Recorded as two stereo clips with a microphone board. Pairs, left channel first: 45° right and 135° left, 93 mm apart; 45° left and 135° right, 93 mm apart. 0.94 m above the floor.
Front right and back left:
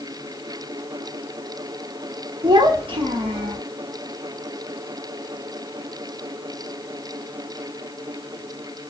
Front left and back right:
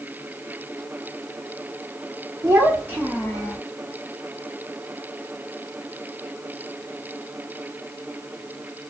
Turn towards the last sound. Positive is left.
turn(degrees=125)